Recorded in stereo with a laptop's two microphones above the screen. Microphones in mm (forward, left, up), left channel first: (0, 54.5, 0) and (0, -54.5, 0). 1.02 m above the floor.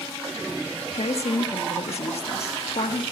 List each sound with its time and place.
0.9 s a woman speaking: 65° left (ahead or behind), 1.5 m